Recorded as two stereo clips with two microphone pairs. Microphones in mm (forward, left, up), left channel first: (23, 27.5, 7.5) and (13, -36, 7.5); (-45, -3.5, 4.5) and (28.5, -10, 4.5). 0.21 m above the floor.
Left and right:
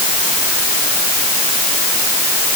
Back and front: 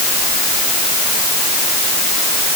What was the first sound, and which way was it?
Only background noise.